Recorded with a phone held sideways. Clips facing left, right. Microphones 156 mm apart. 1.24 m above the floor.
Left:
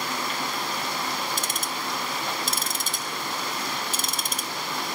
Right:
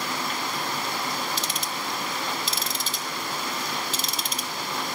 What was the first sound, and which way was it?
Ticking, 45° left (ahead or behind).